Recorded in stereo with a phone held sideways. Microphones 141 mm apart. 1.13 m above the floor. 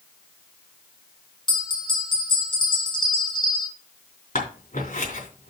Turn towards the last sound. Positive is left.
turn(degrees=70)  # may be behind; listen again after turning